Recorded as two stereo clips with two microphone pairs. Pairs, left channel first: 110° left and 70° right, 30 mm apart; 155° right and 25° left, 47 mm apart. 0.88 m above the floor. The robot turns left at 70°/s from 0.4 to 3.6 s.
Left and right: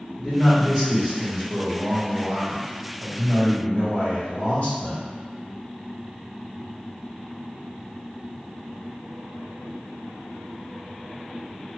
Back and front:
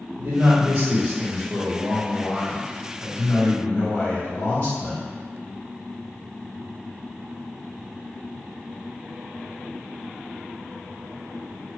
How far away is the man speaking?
About 1.9 m.